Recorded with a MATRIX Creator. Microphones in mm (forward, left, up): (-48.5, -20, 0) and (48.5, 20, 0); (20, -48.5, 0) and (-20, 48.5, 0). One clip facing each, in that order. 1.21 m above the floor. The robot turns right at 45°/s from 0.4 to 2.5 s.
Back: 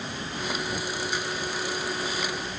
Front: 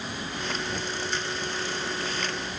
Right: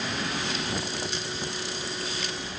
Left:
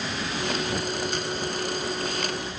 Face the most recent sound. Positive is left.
No sound to turn to.